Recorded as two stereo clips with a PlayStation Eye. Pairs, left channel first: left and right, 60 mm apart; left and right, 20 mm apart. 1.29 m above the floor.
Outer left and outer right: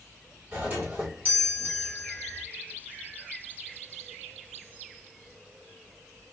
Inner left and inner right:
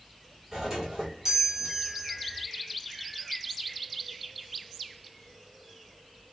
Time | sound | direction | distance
0.5 | a doorbell | 30° right (ahead or behind) | 3 m